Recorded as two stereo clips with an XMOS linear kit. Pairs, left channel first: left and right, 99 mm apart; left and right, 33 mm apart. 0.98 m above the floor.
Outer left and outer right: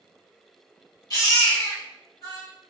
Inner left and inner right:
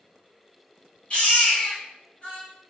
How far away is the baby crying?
About 2 m.